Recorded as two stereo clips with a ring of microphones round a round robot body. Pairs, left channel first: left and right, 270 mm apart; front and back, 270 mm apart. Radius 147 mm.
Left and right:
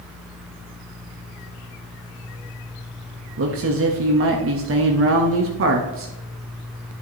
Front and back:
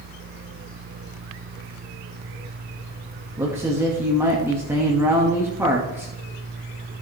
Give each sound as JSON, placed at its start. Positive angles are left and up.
{"t": 3.4, "sound": "a man speaking", "azimuth_deg": -100, "distance_m": 1.0}